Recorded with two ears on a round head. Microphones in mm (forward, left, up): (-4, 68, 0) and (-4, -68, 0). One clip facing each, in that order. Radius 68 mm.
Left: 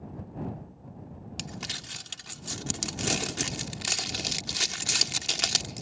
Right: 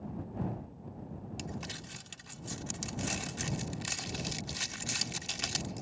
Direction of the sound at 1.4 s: 70° left (ahead or behind).